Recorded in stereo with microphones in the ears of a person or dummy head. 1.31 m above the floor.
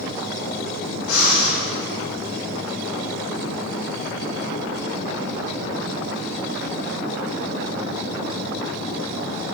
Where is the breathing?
80° left, 4.5 m.